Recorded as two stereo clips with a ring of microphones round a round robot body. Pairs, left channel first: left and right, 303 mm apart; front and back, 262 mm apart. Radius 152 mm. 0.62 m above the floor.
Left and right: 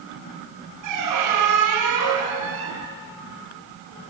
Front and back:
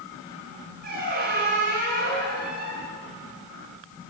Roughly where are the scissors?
I don't hear scissors.